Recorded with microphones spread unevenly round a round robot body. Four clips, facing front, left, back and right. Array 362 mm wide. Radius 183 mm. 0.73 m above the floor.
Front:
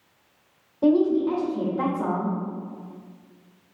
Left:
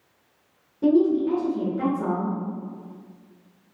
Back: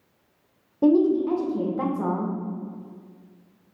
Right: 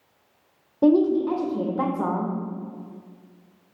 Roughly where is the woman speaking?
Right.